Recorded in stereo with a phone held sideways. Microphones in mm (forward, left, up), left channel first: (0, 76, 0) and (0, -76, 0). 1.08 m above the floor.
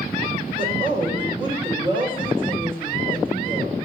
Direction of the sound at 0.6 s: 30° right (ahead or behind).